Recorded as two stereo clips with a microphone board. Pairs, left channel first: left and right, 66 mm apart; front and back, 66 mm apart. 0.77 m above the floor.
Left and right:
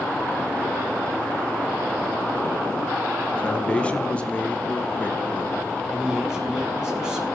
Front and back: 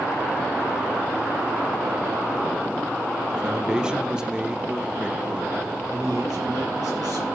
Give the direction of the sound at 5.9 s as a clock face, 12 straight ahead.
6 o'clock.